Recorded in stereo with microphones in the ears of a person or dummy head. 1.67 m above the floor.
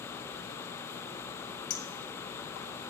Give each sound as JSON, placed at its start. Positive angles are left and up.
{"t": 1.7, "sound": "a clink", "side_deg": 70, "distance_m": 3.0}